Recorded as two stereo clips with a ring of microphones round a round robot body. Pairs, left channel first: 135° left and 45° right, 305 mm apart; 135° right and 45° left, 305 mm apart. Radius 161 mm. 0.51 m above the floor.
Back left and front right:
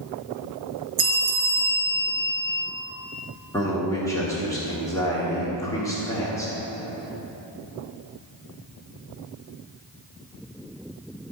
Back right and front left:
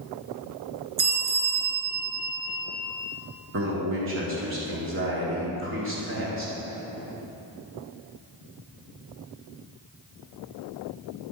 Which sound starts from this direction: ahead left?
A man speaking, at 3.5 s.